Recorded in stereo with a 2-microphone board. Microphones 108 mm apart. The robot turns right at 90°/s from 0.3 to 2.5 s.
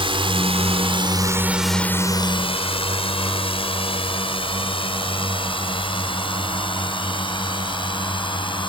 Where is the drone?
55° right (ahead or behind); by 8.7 s 50° left (ahead or behind).